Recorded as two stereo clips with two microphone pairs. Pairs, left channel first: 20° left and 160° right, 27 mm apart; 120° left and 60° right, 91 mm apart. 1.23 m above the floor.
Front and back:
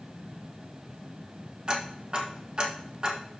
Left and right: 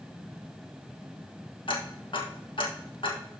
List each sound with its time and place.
1.7 s ticking: 140° left, 1.6 m